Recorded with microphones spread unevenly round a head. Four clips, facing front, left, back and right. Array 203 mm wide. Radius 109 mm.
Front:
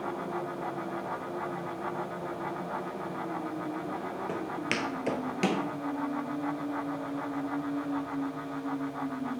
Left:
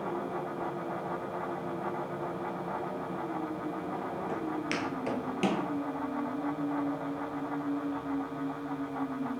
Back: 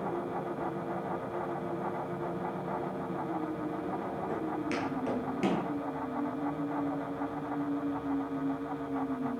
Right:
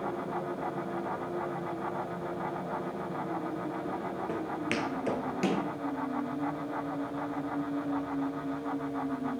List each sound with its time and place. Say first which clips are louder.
4.3 s footsteps: even, back 1 dB; 10° right, 2 m; by 5.6 s 55° left, 1.2 m